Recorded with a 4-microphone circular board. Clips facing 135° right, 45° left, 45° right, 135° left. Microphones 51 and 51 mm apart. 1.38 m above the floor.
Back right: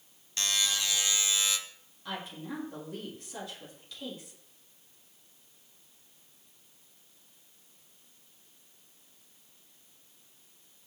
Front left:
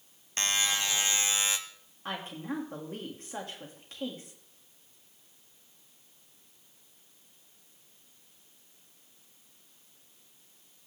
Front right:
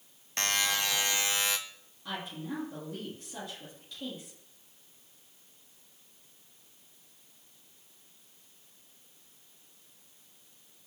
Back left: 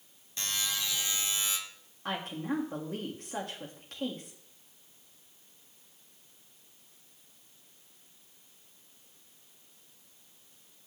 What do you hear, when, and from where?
0.4 s a buzzer: 10° right, 0.9 m
2.0 s a woman speaking: 95° left, 3 m